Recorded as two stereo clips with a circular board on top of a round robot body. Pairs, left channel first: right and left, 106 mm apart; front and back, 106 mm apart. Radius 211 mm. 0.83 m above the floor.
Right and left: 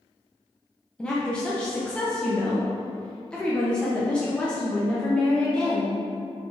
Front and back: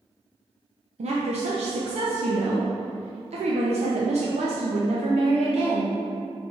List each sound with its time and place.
1.0 s a woman speaking: 170° right, 0.7 m